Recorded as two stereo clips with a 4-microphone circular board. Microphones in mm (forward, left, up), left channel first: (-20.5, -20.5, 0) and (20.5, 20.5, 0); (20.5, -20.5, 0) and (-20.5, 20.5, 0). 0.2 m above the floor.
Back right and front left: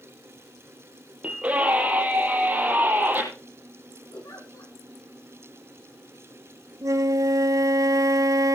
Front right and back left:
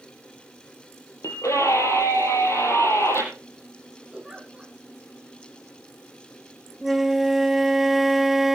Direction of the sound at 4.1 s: 140° right.